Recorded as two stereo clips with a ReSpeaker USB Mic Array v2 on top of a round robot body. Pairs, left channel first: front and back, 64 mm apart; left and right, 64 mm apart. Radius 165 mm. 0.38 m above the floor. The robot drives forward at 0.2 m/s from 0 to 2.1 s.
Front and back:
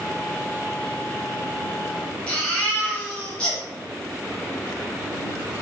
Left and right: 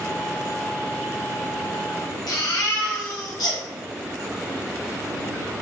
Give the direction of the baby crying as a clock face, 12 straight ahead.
10 o'clock.